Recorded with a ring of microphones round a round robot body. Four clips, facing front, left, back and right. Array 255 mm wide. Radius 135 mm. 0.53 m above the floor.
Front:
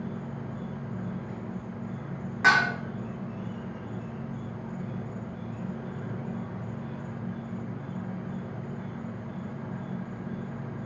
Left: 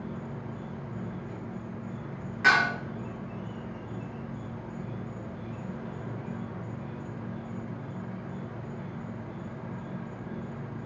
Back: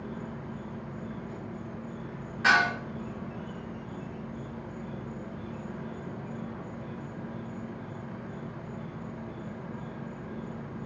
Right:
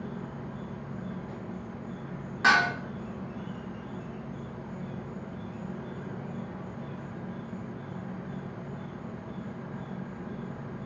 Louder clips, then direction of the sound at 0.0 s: Even, front 2 dB; 20° right.